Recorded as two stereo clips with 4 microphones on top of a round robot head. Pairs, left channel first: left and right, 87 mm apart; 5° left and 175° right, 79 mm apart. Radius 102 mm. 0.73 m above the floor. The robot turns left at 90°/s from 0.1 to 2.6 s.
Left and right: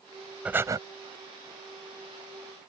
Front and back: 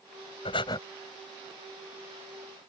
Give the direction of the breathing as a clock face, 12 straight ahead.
12 o'clock.